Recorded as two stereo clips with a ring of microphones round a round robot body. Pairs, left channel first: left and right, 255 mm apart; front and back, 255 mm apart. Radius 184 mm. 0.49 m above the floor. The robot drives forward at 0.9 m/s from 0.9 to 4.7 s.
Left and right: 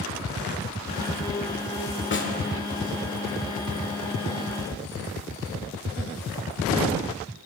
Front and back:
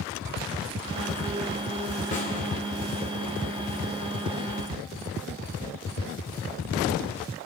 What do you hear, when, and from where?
2.1 s a snare drum: 60° left, 1.9 m; by 2.3 s 65° left, 1.8 m